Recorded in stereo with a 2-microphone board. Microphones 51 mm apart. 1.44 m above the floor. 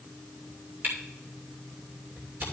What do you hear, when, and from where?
0.8 s a camera shutter: 45° right (ahead or behind), 2.5 m